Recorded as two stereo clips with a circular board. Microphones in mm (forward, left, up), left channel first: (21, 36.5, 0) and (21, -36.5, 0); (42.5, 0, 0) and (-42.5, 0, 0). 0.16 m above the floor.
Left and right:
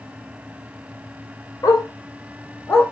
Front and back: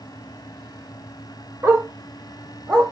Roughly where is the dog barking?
Behind left.